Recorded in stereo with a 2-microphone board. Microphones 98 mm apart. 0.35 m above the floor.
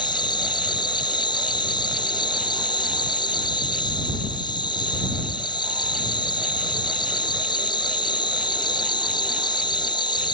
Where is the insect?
50° left (ahead or behind).